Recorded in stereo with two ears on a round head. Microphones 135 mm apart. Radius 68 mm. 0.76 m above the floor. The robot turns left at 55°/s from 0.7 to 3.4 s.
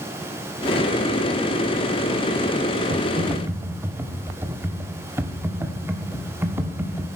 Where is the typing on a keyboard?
40° right (ahead or behind), 1.2 m; by 7.2 s 15° right (ahead or behind), 1.2 m.